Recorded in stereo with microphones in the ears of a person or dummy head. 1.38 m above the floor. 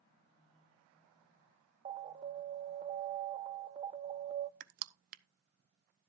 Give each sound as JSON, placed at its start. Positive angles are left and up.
{"t": 1.9, "sound": "an alarm", "side_deg": -35, "distance_m": 0.8}
{"t": 4.6, "sound": "crushing", "side_deg": -40, "distance_m": 0.5}